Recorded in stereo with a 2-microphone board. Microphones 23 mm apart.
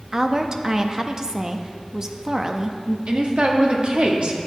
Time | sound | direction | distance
0.1 | a woman speaking | 25° right (ahead or behind) | 0.6 m
3.1 | a woman speaking | 45° right (ahead or behind) | 1.1 m